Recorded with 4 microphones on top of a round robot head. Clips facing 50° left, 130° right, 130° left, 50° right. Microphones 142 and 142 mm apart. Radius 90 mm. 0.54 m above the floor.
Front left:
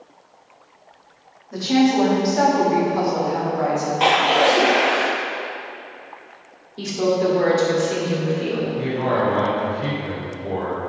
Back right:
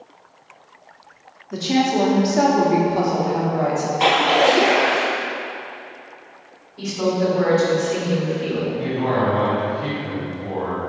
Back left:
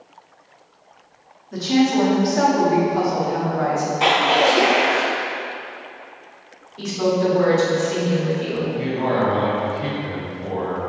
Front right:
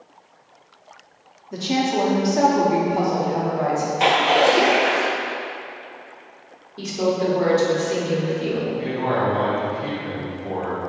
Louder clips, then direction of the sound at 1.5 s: Front left 2 dB, back left 4 dB; 90° right.